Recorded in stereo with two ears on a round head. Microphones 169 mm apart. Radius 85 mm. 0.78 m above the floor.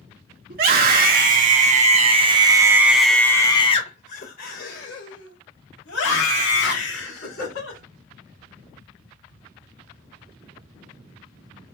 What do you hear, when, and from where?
0.5 s a scream: 50° right (ahead or behind), 1.7 m; by 7.8 s 75° left (ahead or behind), 2.5 m